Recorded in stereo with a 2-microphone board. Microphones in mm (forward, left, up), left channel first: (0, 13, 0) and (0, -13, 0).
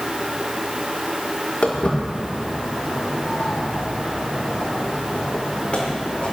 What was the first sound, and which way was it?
Footsteps, 65° left (ahead or behind).